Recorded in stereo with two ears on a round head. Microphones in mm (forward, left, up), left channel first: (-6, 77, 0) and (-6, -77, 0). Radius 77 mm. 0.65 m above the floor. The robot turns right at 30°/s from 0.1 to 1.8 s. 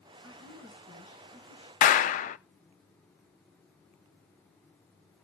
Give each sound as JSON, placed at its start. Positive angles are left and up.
{"t": 0.2, "sound": "a woman speaking", "azimuth_deg": 25, "distance_m": 8.5}
{"t": 1.8, "sound": "a clap", "side_deg": 45, "distance_m": 0.5}